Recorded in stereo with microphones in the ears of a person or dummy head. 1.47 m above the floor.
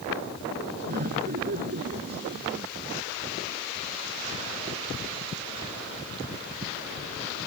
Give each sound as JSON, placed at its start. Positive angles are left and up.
{"t": 0.9, "sound": "laughter", "side_deg": -40}